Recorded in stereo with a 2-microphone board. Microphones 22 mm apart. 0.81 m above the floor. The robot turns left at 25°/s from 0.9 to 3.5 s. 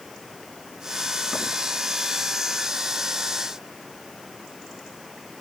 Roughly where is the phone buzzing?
No phone buzzing in this recording.